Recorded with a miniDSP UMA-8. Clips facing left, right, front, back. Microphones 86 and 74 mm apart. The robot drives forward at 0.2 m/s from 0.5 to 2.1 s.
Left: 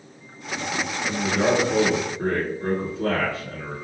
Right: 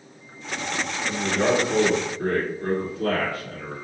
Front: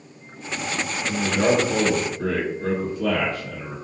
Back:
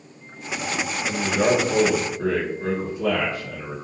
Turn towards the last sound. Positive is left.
turn(degrees=130)